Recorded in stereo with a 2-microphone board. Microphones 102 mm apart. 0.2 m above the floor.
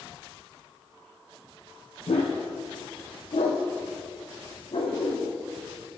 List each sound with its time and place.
2.1 s a dog barking: 80° left, 2 m; by 5.3 s 60° left (ahead or behind), 3.5 m